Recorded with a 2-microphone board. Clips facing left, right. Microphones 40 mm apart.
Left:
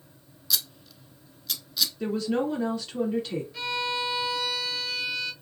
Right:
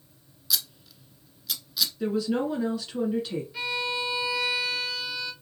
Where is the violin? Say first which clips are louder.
Even; 10° right (ahead or behind), 1.2 m.